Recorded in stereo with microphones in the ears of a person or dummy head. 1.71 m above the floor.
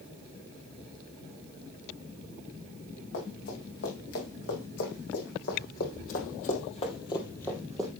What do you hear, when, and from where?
3.1 s running footsteps: 65° left (ahead or behind), 6 m; by 7.9 s 5° right (ahead or behind), 1.8 m